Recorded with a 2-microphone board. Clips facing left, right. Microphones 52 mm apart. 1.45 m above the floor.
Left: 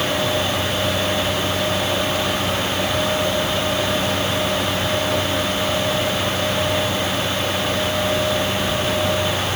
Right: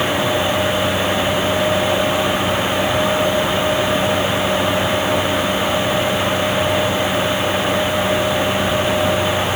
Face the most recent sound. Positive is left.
No sound to turn to.